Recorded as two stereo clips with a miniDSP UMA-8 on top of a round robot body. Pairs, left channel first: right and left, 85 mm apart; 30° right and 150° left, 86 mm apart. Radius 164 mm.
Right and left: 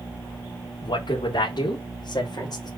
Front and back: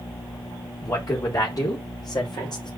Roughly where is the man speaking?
Right.